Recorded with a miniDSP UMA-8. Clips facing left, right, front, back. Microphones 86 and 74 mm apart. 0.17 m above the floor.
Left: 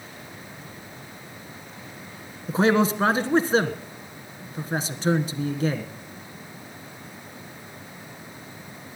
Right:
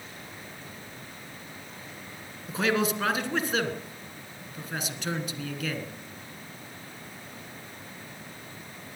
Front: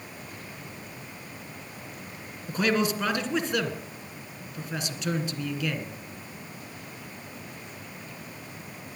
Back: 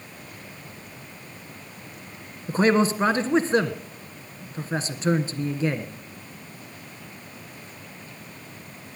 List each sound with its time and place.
2.5 s a man speaking: 135° left, 1.5 m